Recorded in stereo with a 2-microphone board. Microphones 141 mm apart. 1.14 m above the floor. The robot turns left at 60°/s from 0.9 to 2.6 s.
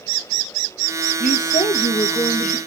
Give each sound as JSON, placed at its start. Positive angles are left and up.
{"t": 1.2, "sound": "a woman speaking", "azimuth_deg": 90, "distance_m": 1.7}